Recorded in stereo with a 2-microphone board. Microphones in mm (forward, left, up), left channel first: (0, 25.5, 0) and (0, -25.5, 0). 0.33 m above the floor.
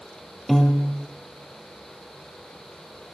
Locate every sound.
0.5 s a piano: 5° left (ahead or behind), 3 m